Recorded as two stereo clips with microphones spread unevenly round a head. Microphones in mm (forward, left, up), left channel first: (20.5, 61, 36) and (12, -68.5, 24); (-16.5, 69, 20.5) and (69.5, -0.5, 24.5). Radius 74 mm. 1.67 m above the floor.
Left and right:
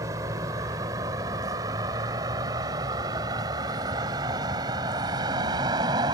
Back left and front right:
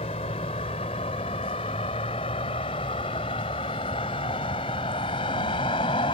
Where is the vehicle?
165° right; by 6.2 s 160° right.